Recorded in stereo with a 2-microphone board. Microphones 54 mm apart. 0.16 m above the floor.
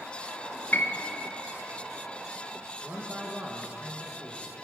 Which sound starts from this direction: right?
A man speaking, at 2.8 s.